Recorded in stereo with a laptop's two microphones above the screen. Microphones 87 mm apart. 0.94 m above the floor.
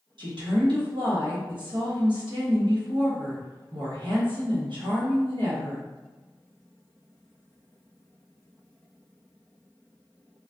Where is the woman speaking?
65° right (ahead or behind), 1.3 m.